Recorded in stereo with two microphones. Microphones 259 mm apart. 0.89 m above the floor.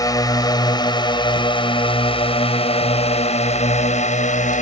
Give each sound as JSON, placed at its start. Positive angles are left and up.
{"t": 0.0, "sound": "a drone", "side_deg": 15}